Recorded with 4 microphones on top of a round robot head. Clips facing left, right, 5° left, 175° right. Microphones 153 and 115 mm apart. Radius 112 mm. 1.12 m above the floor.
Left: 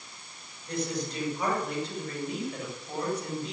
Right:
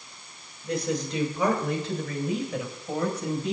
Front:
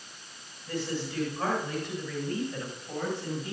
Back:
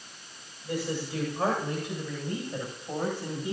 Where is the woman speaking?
95° right, 7 m.